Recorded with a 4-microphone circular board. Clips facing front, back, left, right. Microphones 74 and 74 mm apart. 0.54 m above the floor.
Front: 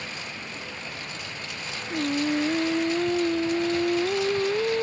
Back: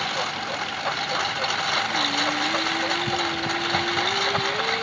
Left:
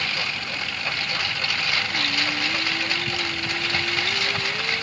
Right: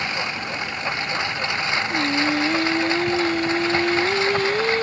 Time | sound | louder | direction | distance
0.0 | a lawn mower | back 10 dB, right 3 dB | 160° right | ?
1.9 | singing | back 1 dB, right 6 dB | 60° right | ?